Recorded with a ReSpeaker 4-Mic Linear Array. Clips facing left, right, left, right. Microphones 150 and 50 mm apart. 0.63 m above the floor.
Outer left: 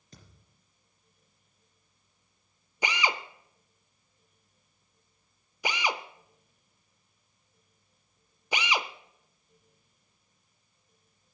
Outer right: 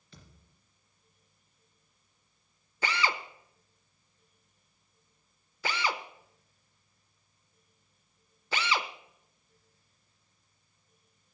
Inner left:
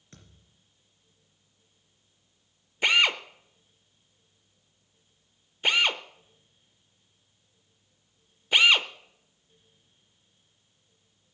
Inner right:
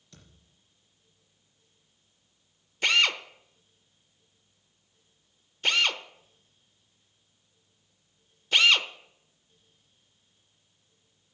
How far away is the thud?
About 3 m.